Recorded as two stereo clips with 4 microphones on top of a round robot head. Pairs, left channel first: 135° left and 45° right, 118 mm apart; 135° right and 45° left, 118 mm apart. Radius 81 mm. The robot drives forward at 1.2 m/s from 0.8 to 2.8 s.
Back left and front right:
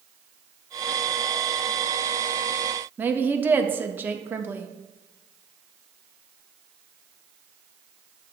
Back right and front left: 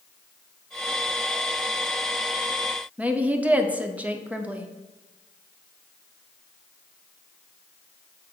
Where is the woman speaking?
10° right, 0.7 m.